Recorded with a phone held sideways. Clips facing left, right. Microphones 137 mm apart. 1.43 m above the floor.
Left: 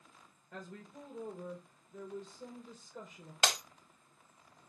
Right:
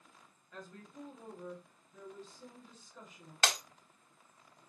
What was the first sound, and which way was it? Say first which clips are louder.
A woman speaking: left 2 dB; 45° left (ahead or behind).